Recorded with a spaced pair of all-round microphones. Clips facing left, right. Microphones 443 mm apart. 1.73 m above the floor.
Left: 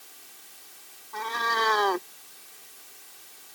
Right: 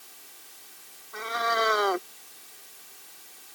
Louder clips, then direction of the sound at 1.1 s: Right 2 dB; 5° left (ahead or behind).